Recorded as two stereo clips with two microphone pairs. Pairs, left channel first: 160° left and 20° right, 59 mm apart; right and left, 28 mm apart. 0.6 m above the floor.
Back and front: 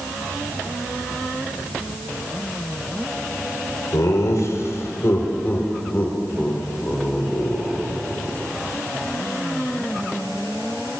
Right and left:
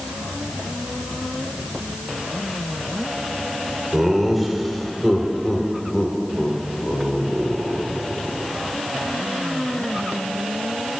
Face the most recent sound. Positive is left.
turn(degrees=-105)